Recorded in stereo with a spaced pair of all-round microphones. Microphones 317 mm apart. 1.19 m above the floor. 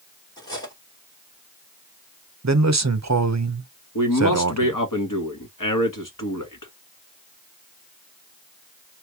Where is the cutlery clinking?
10° left (ahead or behind), 2 m.